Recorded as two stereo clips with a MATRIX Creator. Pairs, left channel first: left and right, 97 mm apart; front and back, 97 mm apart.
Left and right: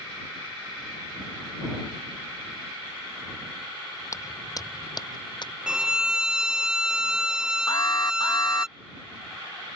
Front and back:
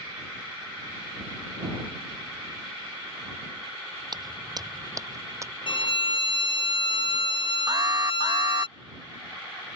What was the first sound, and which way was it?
Footsteps, 145° left.